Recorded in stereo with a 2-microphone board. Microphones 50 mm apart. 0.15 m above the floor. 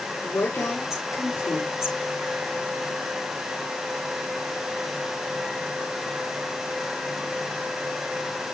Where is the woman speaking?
75° left (ahead or behind), 5 m.